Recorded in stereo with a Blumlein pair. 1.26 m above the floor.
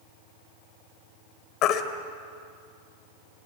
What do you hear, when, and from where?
1.6 s a baby crying: 35° left, 2.5 m